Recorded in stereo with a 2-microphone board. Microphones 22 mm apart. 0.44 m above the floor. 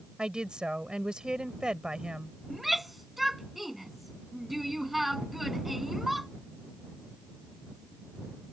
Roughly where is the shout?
Centre.